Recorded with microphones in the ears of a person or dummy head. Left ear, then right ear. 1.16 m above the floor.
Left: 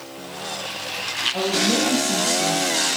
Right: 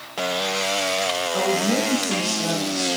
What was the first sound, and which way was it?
A woman speaking, 20° right (ahead or behind).